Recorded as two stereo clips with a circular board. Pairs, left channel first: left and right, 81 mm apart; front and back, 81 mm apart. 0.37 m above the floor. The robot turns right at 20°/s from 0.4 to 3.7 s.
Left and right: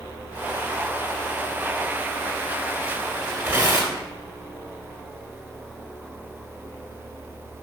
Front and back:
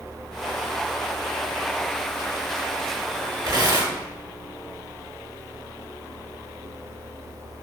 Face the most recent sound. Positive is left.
turn(degrees=-145)